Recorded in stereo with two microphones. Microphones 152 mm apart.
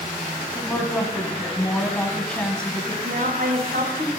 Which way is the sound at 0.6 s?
5° left (ahead or behind).